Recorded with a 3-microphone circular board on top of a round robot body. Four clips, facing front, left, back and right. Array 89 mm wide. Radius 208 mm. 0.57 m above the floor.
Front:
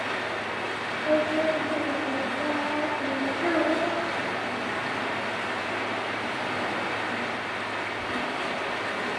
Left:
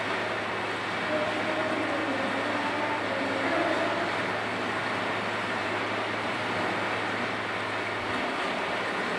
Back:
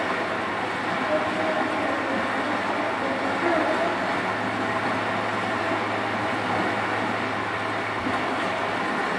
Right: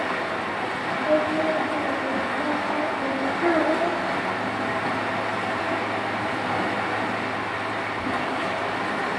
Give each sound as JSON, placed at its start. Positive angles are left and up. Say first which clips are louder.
{"t": 0.0, "sound": "running water", "louder": "right 4 dB, back 5 dB", "azimuth_deg": -140, "distance_m": 2.0}
{"t": 1.0, "sound": "singing", "louder": "right 8 dB, front 3 dB", "azimuth_deg": -50, "distance_m": 4.5}
{"t": 3.4, "sound": "a child speaking", "louder": "right 8 dB, back 2 dB", "azimuth_deg": -75, "distance_m": 1.9}